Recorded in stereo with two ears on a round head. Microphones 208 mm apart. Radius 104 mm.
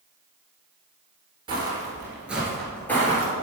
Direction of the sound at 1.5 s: 20° right (ahead or behind).